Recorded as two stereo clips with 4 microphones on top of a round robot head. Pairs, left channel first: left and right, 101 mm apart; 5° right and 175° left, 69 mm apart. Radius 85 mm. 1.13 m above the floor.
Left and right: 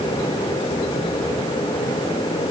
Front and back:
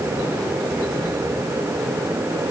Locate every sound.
Only background noise.